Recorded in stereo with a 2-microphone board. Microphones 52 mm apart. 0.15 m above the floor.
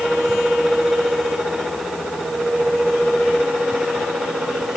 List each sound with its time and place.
Only background noise.